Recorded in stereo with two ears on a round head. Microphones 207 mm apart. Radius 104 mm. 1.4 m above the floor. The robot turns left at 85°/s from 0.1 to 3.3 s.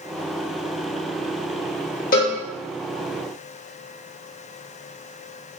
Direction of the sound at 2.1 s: 40° left (ahead or behind).